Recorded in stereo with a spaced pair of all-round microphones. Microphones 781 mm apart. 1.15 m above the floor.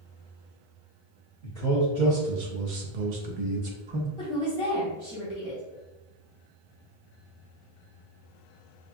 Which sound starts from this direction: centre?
A woman speaking, at 4.2 s.